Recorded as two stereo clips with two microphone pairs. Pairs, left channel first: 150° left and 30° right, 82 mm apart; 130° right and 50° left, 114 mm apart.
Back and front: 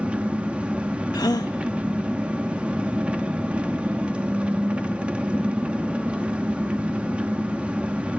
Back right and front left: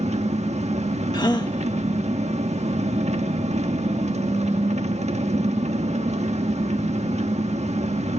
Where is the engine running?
45° left, 1.2 m.